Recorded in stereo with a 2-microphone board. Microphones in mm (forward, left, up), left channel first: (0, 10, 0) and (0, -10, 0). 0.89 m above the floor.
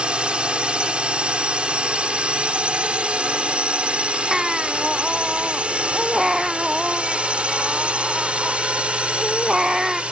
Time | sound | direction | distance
0.0 | a drone | 60° right (ahead or behind) | ?
4.3 | a baby crying | 30° right (ahead or behind) | ?